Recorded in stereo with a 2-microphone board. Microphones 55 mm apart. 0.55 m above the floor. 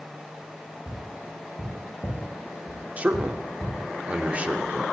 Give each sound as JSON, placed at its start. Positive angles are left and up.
{"t": 0.9, "sound": "tapping", "side_deg": 55, "distance_m": 7.5}
{"t": 3.0, "sound": "a man speaking", "side_deg": -25, "distance_m": 1.2}